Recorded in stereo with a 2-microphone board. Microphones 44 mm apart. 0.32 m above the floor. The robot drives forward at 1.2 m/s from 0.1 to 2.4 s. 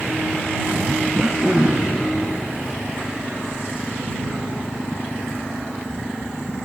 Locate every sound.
1.1 s throat clearing: 15° right (ahead or behind), 5 m